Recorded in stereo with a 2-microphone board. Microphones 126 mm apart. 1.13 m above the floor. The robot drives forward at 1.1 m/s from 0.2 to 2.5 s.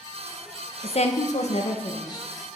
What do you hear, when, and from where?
0.8 s a woman speaking: 50° left (ahead or behind), 0.8 m; by 2.3 s 30° left (ahead or behind), 1.3 m